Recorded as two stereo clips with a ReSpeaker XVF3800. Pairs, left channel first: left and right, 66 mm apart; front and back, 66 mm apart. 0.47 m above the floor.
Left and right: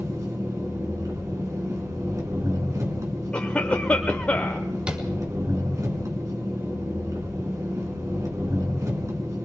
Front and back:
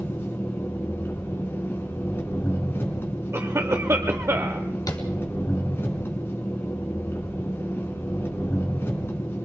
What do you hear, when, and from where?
0.0 s an engine running: 55° right, 4 m
3.3 s a cough: 155° left, 1.4 m
4.9 s tapping: 20° right, 4 m